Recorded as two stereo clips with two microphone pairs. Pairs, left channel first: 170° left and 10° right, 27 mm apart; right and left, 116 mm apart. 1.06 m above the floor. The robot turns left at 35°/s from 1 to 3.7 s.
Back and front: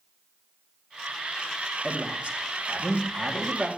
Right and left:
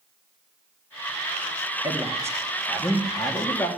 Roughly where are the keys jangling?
No keys jangling in this recording.